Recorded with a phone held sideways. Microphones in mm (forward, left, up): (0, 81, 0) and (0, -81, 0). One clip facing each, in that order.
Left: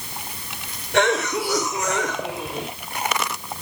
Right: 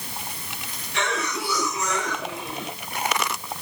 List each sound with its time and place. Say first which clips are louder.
0.9 s a cough: left 8 dB; 75° left (ahead or behind), 3 m